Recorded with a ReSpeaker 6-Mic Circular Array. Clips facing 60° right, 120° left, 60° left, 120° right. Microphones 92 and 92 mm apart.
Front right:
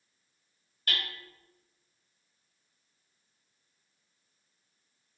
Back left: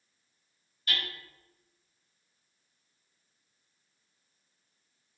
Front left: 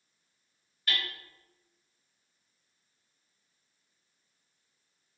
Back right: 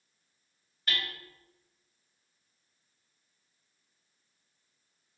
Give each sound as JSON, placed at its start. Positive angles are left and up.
{"t": 0.9, "sound": "hammering", "azimuth_deg": -30, "distance_m": 1.5}